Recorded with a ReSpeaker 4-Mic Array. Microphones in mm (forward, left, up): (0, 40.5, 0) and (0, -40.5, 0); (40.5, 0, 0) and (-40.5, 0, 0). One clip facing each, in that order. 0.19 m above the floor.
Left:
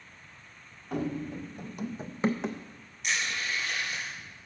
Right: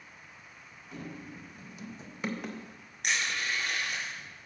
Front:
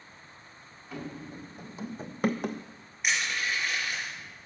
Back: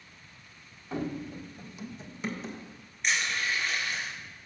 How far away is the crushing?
About 3.5 m.